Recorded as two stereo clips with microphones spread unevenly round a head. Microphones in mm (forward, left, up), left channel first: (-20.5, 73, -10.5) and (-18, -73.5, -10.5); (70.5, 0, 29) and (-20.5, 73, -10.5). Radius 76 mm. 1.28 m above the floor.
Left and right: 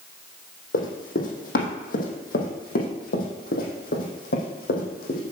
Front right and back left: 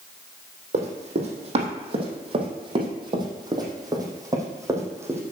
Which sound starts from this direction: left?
Running footsteps, at 0.7 s.